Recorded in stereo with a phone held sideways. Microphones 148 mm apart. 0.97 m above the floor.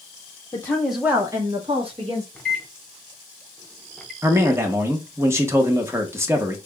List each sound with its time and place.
0.5 s a woman speaking: 25° left (ahead or behind), 0.6 m; by 2.2 s 45° right (ahead or behind), 1.3 m
2.4 s a microwave: 5° left (ahead or behind), 0.7 m
4.2 s a man speaking: 15° right (ahead or behind), 0.8 m